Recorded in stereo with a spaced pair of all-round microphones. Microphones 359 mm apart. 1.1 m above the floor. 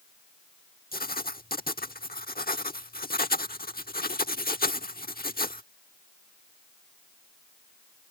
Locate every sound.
0.9 s writing: 25° left (ahead or behind)